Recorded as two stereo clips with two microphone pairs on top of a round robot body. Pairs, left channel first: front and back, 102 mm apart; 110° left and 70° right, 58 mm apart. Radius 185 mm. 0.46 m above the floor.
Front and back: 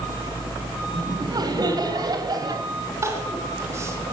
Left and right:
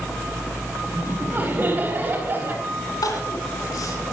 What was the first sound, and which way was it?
Laughter, 130° right.